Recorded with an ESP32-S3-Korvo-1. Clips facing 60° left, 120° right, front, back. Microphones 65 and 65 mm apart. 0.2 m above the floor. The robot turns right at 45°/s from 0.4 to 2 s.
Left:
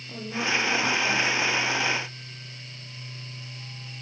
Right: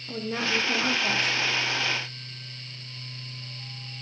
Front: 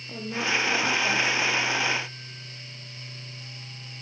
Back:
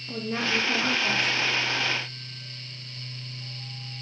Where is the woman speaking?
135° right, 7 m; by 1.3 s 95° right, 7 m.